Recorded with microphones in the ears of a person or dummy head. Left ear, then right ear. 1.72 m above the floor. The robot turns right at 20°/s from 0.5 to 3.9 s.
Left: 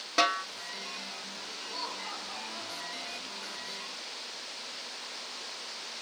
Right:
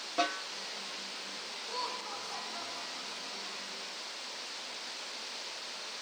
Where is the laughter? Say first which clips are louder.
Even; 165° left, 4.5 m; by 3.6 s 155° right, 4.5 m.